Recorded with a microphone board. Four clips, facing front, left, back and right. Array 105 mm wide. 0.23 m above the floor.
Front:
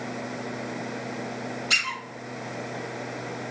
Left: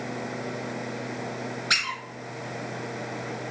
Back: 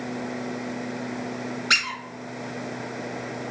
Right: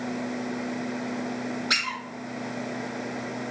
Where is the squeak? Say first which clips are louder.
Even, back 5 dB; 165° left, 1.1 m.